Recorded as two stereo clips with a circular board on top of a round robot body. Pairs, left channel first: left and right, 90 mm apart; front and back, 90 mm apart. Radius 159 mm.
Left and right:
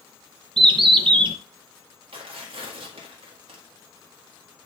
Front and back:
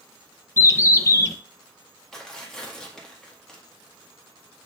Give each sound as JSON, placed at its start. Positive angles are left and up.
{"t": 0.6, "sound": "a bird", "azimuth_deg": -60, "distance_m": 0.7}
{"t": 2.1, "sound": "tearing paper", "azimuth_deg": -85, "distance_m": 1.9}